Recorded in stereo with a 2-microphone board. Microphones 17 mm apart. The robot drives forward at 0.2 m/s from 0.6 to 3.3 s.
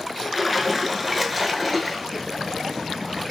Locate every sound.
0.3 s a splash: 5° right (ahead or behind), 0.5 m